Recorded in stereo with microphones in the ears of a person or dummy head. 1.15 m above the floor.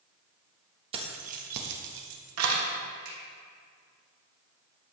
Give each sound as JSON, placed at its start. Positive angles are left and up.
{"t": 0.9, "sound": "keys jangling", "side_deg": -30, "distance_m": 1.2}
{"t": 3.0, "sound": "a finger snap", "side_deg": -75, "distance_m": 2.5}